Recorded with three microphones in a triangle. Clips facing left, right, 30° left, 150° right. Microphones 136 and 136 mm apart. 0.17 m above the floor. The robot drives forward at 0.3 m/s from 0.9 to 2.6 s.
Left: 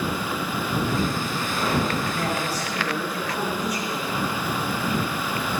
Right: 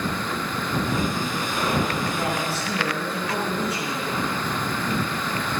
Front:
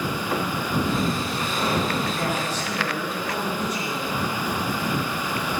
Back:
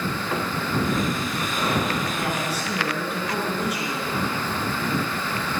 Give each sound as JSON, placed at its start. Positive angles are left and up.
{"t": 2.1, "sound": "a man speaking", "azimuth_deg": -70, "distance_m": 1.6}